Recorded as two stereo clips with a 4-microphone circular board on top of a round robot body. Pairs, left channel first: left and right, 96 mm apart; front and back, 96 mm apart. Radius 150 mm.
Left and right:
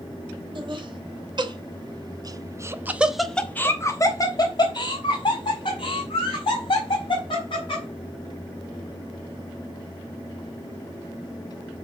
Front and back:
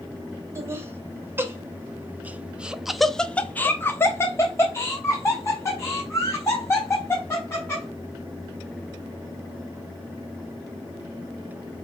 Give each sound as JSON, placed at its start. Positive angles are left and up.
{"t": 0.6, "sound": "laughter", "azimuth_deg": -120, "distance_m": 2.5}